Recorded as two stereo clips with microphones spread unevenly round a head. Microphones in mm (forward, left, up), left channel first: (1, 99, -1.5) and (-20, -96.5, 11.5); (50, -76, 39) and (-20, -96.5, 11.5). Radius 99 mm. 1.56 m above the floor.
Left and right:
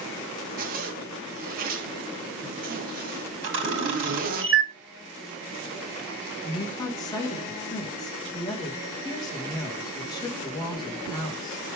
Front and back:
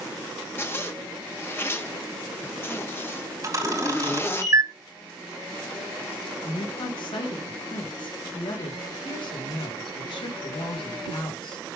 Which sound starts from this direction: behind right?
A camera shutter, at 3.4 s.